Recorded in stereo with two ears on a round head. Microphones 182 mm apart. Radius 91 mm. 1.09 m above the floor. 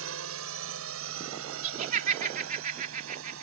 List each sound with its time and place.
0.0 s a drone: 75° right (ahead or behind)
1.6 s laughter: 40° right (ahead or behind)